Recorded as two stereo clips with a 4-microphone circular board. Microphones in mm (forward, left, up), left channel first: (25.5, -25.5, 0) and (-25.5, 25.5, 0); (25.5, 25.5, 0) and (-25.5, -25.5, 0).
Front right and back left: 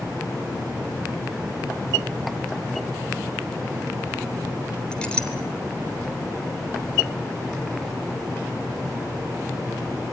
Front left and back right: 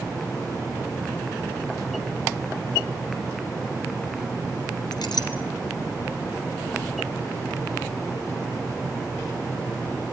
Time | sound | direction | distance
4.9 | a clink | 30° left | 3 m